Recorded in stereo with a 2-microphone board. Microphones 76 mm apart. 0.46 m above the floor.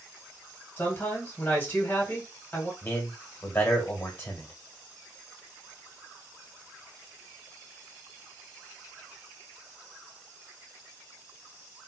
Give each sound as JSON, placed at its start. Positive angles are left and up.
{"t": 0.8, "sound": "a man speaking", "side_deg": 25, "distance_m": 1.8}
{"t": 2.8, "sound": "a man speaking", "side_deg": 35, "distance_m": 1.6}